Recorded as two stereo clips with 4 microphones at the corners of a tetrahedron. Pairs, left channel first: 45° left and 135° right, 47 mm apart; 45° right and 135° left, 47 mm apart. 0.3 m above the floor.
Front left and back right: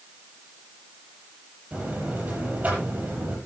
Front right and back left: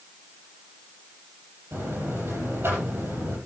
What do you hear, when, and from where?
1.7 s a buzzer: 170° left, 9.5 m